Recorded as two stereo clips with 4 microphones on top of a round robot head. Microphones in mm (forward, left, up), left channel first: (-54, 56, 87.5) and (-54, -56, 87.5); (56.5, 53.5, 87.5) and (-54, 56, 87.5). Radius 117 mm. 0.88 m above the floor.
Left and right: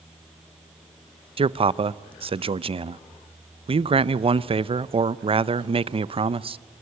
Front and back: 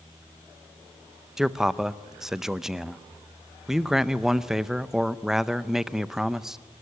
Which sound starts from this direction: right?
A man speaking, at 1.4 s.